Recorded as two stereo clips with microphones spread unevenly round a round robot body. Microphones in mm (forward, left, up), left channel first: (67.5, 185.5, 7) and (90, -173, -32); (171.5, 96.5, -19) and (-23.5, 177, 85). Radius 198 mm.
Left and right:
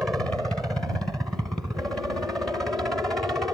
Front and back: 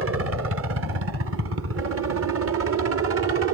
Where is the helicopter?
170° right.